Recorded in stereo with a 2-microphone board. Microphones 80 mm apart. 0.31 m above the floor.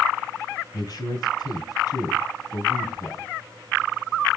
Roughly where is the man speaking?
Left.